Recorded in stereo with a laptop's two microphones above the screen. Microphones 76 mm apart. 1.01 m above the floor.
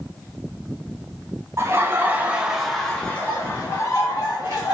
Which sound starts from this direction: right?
Laughter, at 1.6 s.